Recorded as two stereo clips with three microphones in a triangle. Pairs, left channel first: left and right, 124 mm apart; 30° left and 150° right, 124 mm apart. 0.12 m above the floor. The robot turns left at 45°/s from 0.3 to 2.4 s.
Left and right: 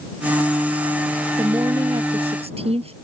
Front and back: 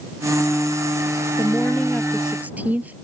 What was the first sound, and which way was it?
A woman speaking, 30° right.